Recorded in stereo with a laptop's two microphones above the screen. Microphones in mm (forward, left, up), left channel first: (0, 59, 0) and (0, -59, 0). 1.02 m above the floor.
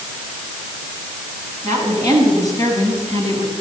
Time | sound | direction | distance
1.6 | a woman speaking | 30° left (ahead or behind) | 7.5 m